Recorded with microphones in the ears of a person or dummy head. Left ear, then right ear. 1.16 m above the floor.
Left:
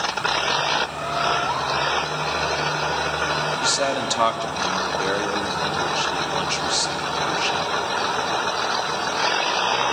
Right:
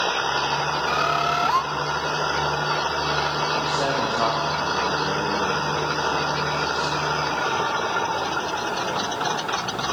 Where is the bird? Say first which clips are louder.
Right 2 dB; 40° right (ahead or behind), 1.0 m.